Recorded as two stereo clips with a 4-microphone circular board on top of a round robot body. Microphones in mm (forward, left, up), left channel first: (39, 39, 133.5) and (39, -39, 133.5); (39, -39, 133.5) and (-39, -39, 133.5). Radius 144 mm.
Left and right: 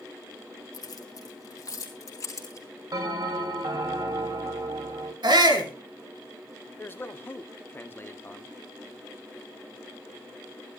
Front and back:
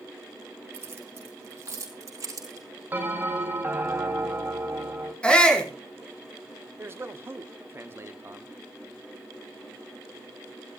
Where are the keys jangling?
125° left, 2.5 m; by 2.7 s 140° left, 4 m.